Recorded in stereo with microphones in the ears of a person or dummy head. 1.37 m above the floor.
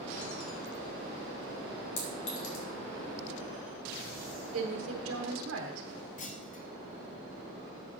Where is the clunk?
35° left (ahead or behind), 0.8 m.